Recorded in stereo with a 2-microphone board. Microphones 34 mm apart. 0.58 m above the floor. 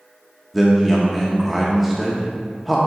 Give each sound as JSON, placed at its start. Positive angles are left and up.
{"t": 0.5, "sound": "a man speaking", "side_deg": 0, "distance_m": 0.7}